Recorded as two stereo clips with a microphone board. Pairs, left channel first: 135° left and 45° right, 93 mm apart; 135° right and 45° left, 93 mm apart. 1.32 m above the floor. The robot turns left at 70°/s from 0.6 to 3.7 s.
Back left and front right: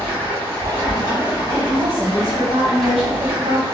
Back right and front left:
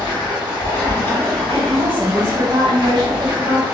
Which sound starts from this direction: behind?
Running water, at 0.0 s.